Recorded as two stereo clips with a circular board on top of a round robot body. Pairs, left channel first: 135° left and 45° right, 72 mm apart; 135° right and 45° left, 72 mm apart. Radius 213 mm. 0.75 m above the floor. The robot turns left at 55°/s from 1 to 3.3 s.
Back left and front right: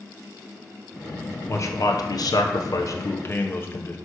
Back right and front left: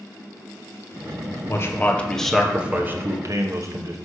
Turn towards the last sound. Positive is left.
turn(degrees=80)